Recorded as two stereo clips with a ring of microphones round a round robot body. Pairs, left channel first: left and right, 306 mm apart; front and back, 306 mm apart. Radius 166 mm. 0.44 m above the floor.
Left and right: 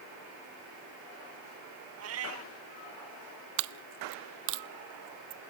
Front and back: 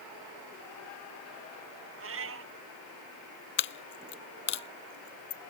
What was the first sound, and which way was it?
A cat meowing, 135° right.